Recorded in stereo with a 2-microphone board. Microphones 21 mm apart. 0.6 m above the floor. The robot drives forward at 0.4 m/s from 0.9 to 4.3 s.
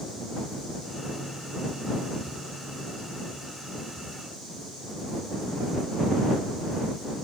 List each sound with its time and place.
Only background noise.